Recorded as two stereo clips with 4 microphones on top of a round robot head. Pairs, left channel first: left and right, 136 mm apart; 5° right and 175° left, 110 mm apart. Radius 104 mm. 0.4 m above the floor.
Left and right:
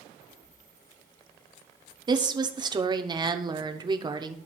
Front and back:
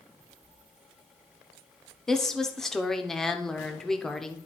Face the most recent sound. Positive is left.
turn(degrees=-90)